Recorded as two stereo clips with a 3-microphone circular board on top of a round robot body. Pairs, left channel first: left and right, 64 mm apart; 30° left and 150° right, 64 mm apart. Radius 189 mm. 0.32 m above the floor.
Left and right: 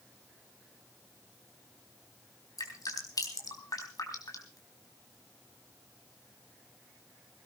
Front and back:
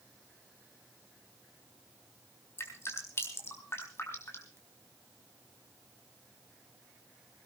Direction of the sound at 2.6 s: 75° left.